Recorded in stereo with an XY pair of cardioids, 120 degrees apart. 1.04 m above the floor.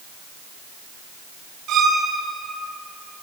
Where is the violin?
70° right, 3 m.